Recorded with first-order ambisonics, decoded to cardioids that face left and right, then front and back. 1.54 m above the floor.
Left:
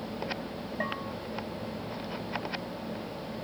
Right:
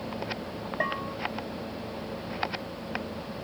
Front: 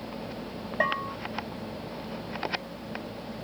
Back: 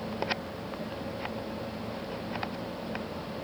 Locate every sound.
0.8 s a bell: 15° right